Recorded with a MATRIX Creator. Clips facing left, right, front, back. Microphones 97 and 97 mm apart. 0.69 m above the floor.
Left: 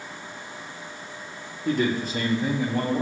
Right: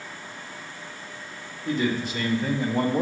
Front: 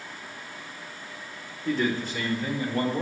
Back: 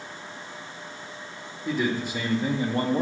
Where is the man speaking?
100° left, 1.8 m; by 3.0 s 135° right, 1.3 m.